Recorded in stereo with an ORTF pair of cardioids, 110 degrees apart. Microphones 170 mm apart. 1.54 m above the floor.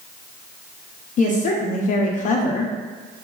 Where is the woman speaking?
50° left, 0.6 m.